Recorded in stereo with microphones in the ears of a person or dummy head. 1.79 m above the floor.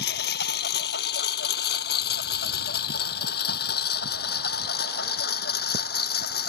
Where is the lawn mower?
65° left (ahead or behind); by 6.5 s 60° left (ahead or behind).